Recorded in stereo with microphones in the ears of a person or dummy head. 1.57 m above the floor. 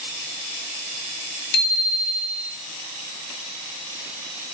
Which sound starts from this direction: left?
A bicycle bell, at 1.5 s.